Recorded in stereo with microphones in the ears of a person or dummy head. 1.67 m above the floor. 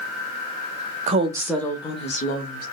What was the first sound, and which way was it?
A woman speaking, 40° right (ahead or behind).